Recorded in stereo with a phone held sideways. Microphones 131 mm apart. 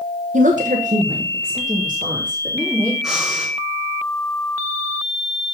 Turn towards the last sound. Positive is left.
turn(degrees=-5)  # may be behind; listen again after turning